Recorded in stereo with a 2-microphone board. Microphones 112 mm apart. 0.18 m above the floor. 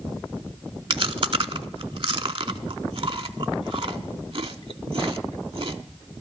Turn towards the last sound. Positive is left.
turn(degrees=-50)  # may be behind; listen again after turning